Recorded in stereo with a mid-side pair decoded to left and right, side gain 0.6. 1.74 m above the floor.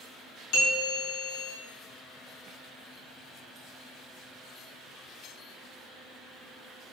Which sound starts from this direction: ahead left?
A bell, at 0.5 s.